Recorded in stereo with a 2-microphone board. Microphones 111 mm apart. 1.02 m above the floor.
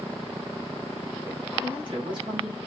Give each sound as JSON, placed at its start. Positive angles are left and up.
{"t": 1.6, "sound": "a woman speaking", "side_deg": -45, "distance_m": 6.0}